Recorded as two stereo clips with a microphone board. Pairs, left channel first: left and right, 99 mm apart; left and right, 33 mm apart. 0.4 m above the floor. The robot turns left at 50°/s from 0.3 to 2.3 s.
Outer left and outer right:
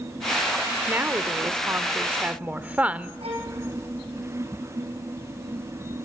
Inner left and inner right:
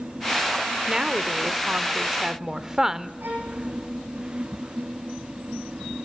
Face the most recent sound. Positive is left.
turn(degrees=-80)